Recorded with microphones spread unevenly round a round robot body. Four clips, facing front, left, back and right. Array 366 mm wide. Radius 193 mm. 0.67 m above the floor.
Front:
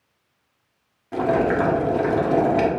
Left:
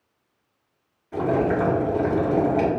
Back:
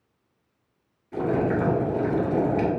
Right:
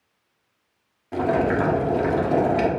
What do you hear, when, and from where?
1.1 s boiling: 40° right, 1.7 m